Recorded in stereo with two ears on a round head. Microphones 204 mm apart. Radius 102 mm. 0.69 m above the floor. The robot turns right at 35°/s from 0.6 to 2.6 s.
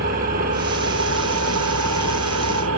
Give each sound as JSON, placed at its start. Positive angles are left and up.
{"t": 0.0, "sound": "an engine running", "azimuth_deg": -135, "distance_m": 5.5}